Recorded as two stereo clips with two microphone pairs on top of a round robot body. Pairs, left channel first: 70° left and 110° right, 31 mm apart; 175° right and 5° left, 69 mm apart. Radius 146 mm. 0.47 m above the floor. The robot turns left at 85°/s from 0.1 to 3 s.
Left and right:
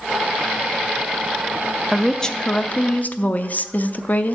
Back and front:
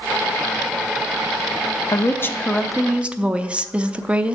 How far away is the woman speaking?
About 0.9 m.